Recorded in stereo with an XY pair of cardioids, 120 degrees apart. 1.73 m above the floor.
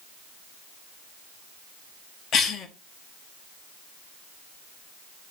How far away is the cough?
About 0.9 m.